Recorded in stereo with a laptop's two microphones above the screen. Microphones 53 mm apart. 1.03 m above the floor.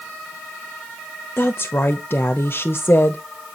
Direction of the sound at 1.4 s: 45° left (ahead or behind).